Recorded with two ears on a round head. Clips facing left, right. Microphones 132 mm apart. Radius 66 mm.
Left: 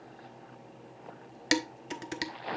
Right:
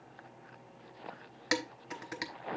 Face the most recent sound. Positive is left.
turn(degrees=30)  # may be behind; listen again after turning